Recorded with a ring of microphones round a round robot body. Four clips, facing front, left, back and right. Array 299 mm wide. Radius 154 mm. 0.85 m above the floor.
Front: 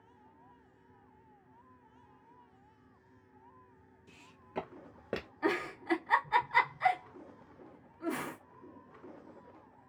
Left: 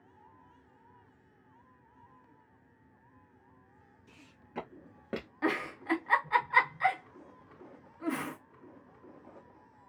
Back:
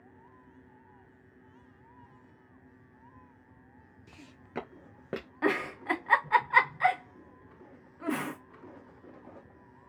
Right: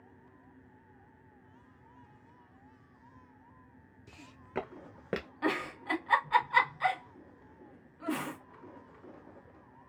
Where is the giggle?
170° left, 0.9 m.